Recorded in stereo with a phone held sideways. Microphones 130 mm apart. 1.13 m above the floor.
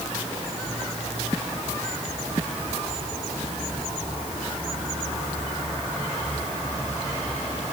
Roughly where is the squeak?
I don't hear a squeak.